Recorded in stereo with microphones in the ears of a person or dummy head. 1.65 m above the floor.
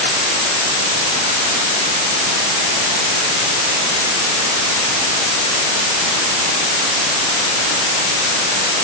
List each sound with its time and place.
Only background noise.